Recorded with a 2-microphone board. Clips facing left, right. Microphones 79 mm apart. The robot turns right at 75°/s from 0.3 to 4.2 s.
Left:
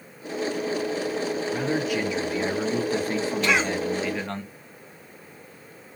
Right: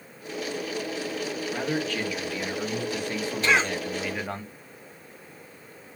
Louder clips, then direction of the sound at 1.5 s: Left 1 dB; 5° right.